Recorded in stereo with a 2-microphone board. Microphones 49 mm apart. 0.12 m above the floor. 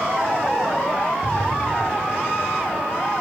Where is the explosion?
15° right (ahead or behind), 2.5 m.